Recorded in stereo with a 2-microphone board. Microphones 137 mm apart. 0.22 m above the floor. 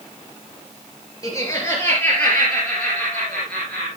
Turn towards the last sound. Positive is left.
turn(degrees=5)  # may be behind; listen again after turning